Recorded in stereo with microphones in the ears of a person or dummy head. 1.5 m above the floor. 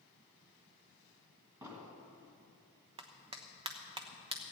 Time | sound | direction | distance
1.6 | an explosion | 15° right (ahead or behind) | 1.8 m
3.0 | a clap | 25° right (ahead or behind) | 1.1 m